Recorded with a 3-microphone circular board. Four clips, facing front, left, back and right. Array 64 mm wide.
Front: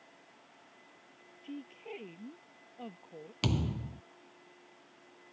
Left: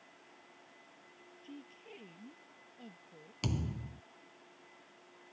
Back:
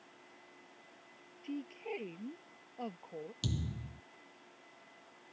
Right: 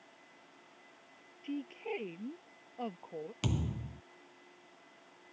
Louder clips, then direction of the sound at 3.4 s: Even, front 10 dB; 10° right.